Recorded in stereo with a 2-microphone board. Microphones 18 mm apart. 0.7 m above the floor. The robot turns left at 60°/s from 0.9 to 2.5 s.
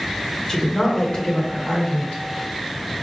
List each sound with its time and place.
0.5 s a woman speaking: 155° left, 1.7 m; by 2.2 s 75° left, 1.7 m